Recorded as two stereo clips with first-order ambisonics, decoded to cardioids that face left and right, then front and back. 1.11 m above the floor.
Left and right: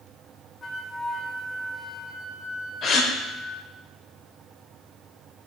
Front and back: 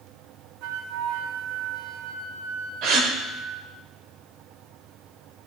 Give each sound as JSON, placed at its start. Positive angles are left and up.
{"t": 0.6, "sound": "a flute", "azimuth_deg": 160, "distance_m": 0.8}
{"t": 2.8, "sound": "a gasp", "azimuth_deg": 150, "distance_m": 1.6}